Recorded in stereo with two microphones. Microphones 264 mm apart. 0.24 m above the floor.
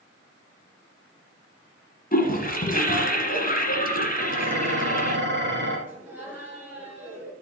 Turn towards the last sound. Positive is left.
turn(degrees=-5)  # may be behind; listen again after turning